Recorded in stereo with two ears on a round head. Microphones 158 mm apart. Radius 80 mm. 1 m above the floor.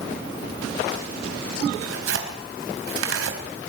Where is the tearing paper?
85° right, 3.5 m.